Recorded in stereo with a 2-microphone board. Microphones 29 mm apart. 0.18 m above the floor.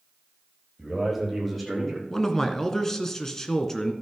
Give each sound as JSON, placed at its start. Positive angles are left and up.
{"t": 0.8, "sound": "a man speaking", "side_deg": -5, "distance_m": 7.0}
{"t": 2.1, "sound": "a man speaking", "side_deg": 15, "distance_m": 1.7}